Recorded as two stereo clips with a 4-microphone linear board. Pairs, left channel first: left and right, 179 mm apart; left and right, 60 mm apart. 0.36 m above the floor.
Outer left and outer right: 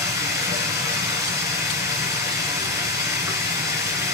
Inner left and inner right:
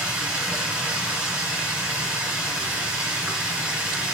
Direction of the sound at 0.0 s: 15° right (ahead or behind).